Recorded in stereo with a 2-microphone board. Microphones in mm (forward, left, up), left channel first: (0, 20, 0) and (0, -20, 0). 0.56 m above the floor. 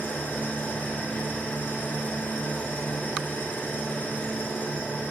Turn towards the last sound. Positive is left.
turn(degrees=45)  # may be behind; listen again after turning